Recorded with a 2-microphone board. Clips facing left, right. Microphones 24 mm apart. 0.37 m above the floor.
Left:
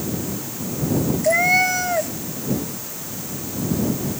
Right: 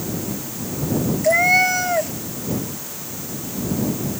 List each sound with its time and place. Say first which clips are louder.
1.2 s a cat meowing: right 2 dB; 5° right (ahead or behind)